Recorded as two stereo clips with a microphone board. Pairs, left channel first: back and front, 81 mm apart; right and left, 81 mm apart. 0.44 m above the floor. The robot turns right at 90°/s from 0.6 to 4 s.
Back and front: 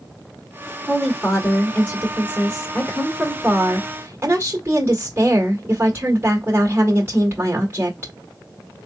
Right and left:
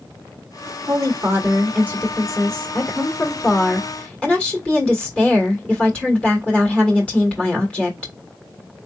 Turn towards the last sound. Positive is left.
turn(degrees=-30)